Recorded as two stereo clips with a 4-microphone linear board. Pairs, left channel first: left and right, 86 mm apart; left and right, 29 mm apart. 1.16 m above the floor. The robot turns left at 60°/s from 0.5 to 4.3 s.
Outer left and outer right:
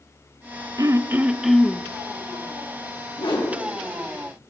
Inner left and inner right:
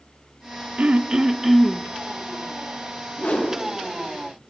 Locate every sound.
0.8 s throat clearing: 135° right, 0.5 m; by 1.8 s 160° left, 0.5 m
3.2 s a whoosh: 70° left (ahead or behind), 3 m; by 3.6 s 80° left, 3 m